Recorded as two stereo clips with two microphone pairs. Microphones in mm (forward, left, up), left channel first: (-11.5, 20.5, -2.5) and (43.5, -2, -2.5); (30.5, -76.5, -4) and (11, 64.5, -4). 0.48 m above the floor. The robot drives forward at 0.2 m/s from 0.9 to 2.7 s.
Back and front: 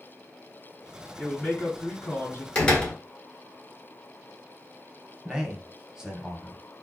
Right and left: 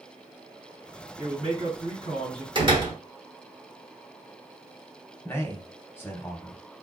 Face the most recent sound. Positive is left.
turn(degrees=-55)